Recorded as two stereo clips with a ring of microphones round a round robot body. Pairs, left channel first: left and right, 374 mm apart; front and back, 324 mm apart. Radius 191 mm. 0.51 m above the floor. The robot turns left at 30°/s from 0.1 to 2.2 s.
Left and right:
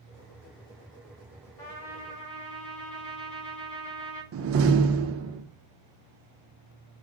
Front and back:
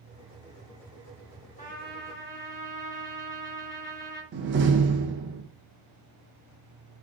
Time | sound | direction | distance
1.6 | a trumpet | 65° left | 1.8 m
4.3 | a door slam | 135° right | 0.6 m